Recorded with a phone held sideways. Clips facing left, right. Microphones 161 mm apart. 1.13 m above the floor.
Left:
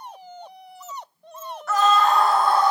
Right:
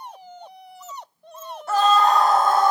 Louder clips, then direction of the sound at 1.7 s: Right 1 dB; 30° right (ahead or behind).